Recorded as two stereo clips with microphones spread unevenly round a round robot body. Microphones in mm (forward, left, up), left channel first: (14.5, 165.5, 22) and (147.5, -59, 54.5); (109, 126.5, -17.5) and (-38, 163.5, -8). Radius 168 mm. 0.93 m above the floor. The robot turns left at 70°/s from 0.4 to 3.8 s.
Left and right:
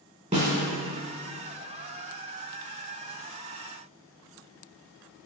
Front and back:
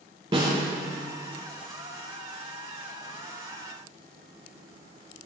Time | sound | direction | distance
0.3 | a snare drum | 130° right | 1.8 m